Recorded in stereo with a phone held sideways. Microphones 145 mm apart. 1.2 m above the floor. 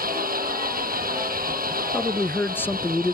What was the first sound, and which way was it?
An engine running, 85° right.